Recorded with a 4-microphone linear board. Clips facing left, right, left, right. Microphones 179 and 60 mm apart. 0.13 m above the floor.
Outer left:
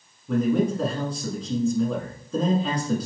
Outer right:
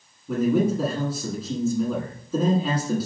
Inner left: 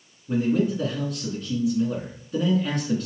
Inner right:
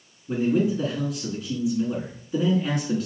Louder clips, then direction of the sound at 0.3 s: Outer right 1 dB, even; 5° right (ahead or behind).